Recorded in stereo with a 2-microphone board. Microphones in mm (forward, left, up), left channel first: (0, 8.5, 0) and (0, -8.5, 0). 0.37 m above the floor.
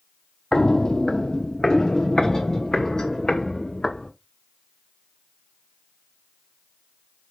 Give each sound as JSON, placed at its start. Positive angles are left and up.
{"t": 0.5, "sound": "footsteps", "side_deg": 55, "distance_m": 0.7}